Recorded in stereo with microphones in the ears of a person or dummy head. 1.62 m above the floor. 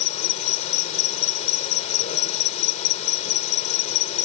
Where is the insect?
45° left (ahead or behind).